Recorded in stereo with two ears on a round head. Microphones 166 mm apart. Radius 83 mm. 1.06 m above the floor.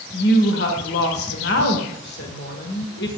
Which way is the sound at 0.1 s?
60° left (ahead or behind).